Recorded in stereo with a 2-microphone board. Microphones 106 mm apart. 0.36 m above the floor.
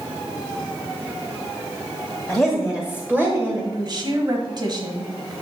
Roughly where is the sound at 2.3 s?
Centre.